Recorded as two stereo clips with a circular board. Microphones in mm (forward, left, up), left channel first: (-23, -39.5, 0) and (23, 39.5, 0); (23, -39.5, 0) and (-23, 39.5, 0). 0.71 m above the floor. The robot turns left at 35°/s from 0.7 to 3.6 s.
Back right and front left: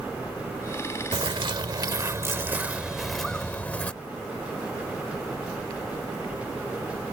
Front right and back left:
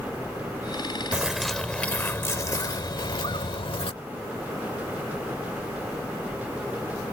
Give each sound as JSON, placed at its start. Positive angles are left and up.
{"t": 1.1, "sound": "a bird", "azimuth_deg": 40}